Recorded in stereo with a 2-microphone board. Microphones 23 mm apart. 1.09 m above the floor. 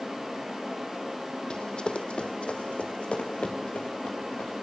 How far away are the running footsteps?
About 1.4 m.